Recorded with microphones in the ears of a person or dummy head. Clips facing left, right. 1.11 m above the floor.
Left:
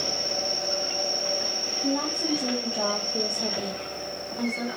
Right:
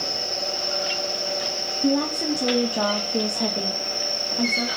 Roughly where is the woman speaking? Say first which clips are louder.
Right 5 dB; right.